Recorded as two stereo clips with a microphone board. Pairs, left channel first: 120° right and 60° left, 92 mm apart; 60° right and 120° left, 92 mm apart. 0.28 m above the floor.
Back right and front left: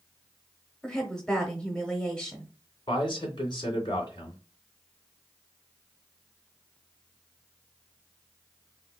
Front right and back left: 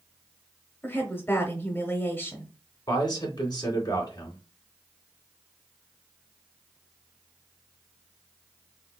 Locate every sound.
0.8 s a woman speaking: 55° right, 0.9 m
2.9 s a man speaking: 95° right, 2.5 m